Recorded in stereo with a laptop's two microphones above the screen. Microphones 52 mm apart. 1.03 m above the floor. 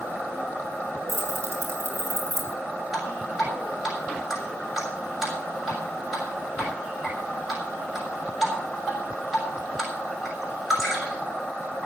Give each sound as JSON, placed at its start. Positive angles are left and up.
{"t": 1.1, "sound": "keys jangling", "side_deg": -85, "distance_m": 7.0}
{"t": 2.9, "sound": "dripping", "side_deg": -5, "distance_m": 6.5}